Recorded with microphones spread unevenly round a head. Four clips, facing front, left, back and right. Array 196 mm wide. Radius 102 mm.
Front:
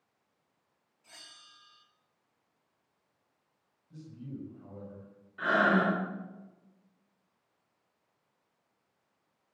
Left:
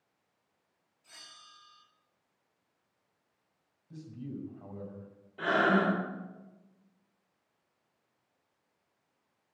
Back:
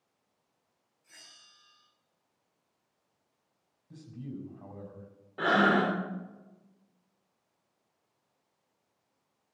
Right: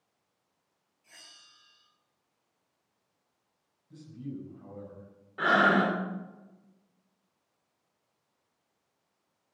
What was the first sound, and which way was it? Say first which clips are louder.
A bell: left 3 dB, front 3 dB; straight ahead.